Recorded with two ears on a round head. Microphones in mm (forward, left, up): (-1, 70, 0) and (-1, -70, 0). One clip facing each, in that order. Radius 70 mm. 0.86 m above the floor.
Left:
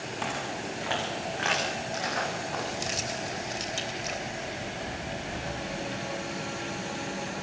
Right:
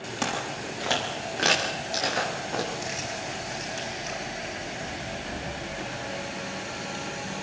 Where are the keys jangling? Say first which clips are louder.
Even; 40° left (ahead or behind), 3 m.